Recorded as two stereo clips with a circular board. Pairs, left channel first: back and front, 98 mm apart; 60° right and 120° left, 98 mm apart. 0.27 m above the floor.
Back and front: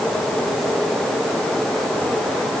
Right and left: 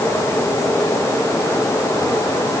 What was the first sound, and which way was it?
Only background noise.